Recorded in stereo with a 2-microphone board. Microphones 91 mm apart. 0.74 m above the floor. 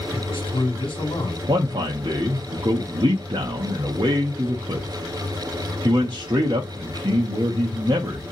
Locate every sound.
0.1 s a man speaking: 65° left (ahead or behind), 1.6 m
1.5 s a man speaking: 50° right (ahead or behind), 0.7 m